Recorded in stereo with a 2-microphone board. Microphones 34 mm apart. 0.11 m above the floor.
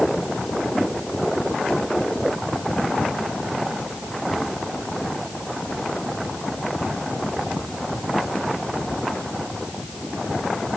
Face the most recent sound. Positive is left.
No sound to turn to.